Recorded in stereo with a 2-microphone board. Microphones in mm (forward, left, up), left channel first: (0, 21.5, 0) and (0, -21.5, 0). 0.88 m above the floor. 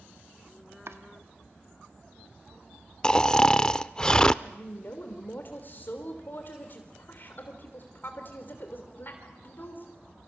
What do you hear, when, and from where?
0.9 s chopping: 75° right (ahead or behind), 1.3 m
3.0 s snoring: 20° left (ahead or behind), 0.5 m
4.4 s a woman speaking: 50° left (ahead or behind), 3 m